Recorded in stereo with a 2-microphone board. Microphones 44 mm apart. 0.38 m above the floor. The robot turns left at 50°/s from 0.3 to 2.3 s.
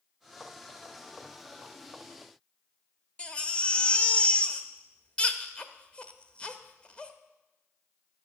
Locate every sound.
3.2 s a baby crying: 25° left (ahead or behind), 0.8 m